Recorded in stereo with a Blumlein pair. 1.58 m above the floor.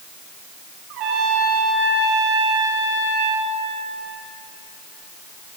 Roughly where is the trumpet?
Ahead right.